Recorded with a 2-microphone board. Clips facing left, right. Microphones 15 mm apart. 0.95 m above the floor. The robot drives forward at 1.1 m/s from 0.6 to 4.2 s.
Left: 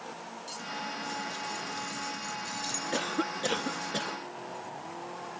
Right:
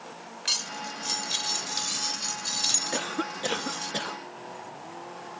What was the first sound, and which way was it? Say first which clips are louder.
Cutlery clinking: right 9 dB; 90° right.